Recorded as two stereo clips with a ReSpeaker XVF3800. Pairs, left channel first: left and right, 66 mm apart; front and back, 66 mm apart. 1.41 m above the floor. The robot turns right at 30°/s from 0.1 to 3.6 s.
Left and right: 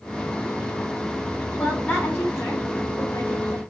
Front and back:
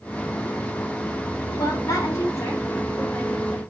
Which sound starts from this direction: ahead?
A woman speaking, at 1.6 s.